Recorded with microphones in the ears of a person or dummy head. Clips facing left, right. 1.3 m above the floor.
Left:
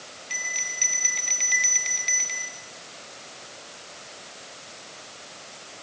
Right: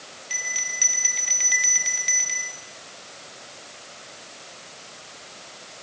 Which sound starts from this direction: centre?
A bell, at 0.3 s.